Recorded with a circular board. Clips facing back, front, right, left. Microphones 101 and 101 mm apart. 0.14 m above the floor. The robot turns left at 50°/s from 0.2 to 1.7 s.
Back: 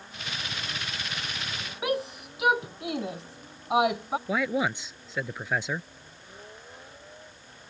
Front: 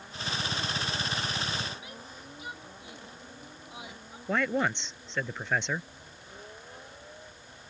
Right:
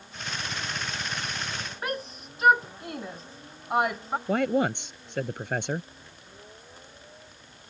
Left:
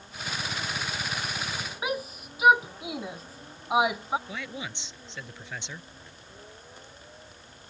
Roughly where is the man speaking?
Right.